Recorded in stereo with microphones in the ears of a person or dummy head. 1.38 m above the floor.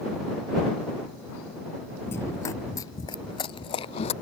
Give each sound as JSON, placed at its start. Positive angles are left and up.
{"t": 2.1, "sound": "running footsteps", "side_deg": 10}